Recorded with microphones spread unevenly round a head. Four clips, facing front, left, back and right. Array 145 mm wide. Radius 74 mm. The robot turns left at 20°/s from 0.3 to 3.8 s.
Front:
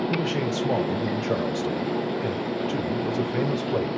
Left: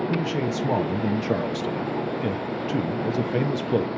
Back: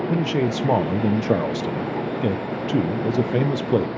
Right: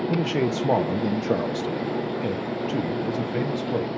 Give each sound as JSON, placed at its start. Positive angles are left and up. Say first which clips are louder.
{"t": 0.1, "sound": "a man speaking", "louder": "right 2 dB, back 4 dB", "azimuth_deg": -130, "distance_m": 0.9}